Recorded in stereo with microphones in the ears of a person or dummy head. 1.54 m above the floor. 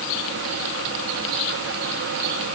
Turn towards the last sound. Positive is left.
No sound to turn to.